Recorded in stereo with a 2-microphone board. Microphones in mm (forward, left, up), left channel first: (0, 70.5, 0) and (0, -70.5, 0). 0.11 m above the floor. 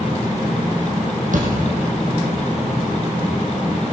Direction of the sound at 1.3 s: 65° right (ahead or behind).